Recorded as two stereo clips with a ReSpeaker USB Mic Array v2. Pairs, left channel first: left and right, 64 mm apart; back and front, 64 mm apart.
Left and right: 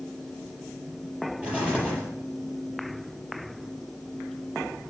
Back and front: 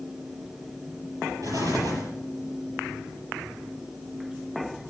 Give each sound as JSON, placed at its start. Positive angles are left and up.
{"t": 1.4, "sound": "an explosion", "azimuth_deg": -20, "distance_m": 5.5}